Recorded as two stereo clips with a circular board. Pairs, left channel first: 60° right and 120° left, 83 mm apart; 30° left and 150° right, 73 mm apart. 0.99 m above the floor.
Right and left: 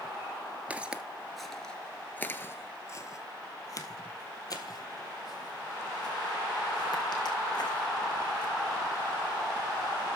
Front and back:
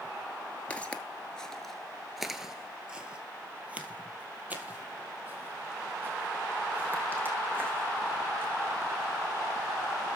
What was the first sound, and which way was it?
Footsteps, 70° left.